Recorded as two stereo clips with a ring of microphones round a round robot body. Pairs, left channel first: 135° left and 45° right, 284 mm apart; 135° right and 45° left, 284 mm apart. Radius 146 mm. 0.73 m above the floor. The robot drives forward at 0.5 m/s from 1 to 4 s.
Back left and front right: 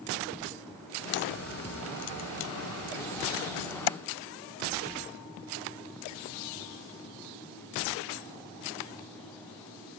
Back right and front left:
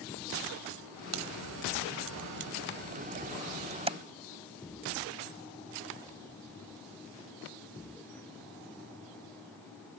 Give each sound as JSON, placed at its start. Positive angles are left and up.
{"t": 1.1, "sound": "a crack", "azimuth_deg": 80}